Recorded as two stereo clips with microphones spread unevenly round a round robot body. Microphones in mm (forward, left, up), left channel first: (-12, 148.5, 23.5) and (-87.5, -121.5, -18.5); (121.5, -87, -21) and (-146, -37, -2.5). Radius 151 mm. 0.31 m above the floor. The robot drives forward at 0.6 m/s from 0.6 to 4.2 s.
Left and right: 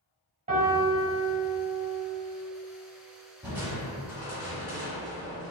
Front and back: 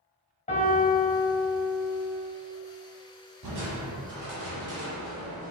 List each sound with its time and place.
0.5 s a piano: 60° right, 1.5 m; by 2.0 s 115° right, 1.4 m
3.4 s crushing: 175° left, 1.3 m